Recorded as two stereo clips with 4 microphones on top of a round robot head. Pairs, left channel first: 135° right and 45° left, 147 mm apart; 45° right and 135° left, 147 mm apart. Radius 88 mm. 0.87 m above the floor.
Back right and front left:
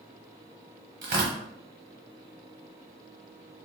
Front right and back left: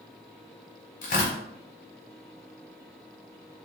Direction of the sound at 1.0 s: Straight ahead.